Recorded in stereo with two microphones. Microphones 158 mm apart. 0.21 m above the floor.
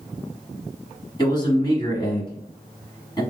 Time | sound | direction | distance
1.2 | a man speaking | 30° left (ahead or behind) | 1.5 m